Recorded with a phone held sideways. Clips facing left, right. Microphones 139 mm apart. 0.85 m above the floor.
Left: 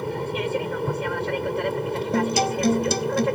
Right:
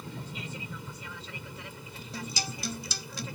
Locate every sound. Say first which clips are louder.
0.0 s an aircraft: left 15 dB; 65° left (ahead or behind)
2.1 s a guitar: left 16 dB; 60° left (ahead or behind)